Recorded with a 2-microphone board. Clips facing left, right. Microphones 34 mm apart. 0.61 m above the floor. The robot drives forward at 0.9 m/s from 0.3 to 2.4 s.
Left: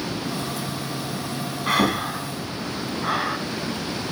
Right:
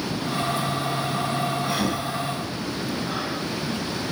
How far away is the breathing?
About 4 m.